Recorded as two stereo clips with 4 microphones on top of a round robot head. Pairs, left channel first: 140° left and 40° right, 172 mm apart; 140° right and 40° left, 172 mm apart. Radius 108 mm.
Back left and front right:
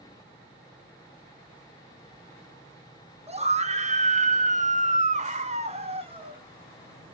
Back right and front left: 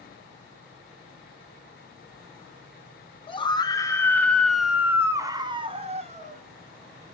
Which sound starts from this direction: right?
A scream, at 3.3 s.